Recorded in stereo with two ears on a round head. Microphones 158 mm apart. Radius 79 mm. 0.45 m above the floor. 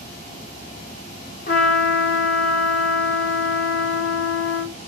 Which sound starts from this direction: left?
A trumpet, at 1.5 s.